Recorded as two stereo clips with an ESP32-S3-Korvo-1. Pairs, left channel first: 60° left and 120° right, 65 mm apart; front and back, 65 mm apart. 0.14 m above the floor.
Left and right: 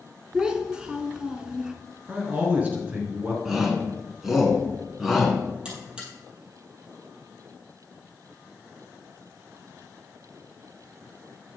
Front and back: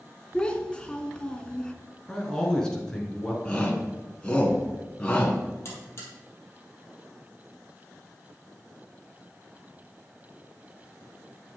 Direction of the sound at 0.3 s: 60° right.